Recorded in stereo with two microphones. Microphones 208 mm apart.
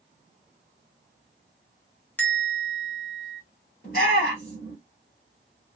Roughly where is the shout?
Left.